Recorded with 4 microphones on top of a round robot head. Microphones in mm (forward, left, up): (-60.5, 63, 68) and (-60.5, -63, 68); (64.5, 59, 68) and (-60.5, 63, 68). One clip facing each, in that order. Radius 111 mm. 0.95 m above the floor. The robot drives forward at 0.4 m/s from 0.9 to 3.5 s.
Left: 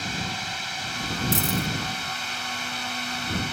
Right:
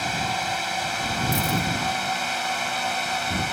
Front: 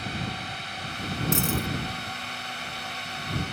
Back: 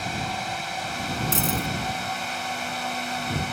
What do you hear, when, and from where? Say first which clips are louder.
0.0 s a drone: right 6 dB, back 5 dB; 125° right; by 3.5 s 130° right
1.3 s a dropped coin: right 1 dB, even; 105° left; by 1.7 s 110° left